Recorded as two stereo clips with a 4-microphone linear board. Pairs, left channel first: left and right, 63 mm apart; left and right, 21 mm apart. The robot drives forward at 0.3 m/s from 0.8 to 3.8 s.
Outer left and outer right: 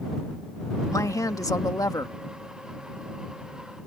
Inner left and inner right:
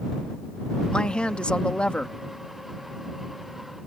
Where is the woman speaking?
60° left (ahead or behind); by 2.1 s 70° left (ahead or behind).